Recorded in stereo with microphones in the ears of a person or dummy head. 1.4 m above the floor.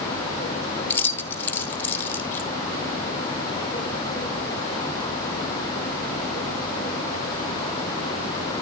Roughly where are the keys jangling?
Centre.